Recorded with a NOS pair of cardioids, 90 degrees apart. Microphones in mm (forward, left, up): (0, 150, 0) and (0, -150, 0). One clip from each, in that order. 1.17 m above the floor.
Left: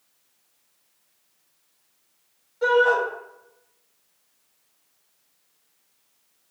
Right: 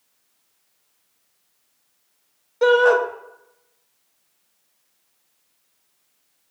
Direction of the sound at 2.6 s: 65° right.